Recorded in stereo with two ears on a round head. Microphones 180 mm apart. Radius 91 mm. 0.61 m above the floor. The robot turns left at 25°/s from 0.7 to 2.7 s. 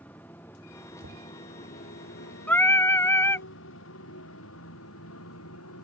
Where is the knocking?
50° right (ahead or behind); by 1.3 s 55° right (ahead or behind).